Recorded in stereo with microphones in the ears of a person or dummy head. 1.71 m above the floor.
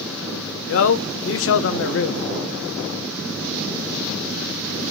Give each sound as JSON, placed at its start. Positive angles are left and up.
{"t": 0.7, "sound": "a man speaking", "side_deg": 75, "distance_m": 0.6}